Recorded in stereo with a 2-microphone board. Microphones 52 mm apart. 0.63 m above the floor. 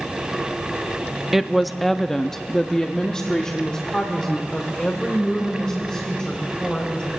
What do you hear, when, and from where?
1.3 s a woman speaking: 10° right (ahead or behind), 0.6 m; by 7.1 s 20° left (ahead or behind), 3 m